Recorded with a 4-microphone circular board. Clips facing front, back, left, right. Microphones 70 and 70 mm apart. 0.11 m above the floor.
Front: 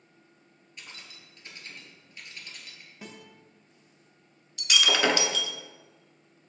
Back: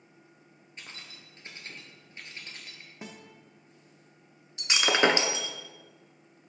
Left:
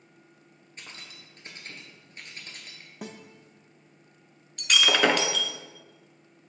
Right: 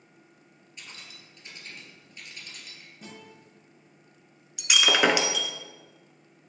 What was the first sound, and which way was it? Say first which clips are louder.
Keys jangling: back 1 dB, left 1 dB; 130° left.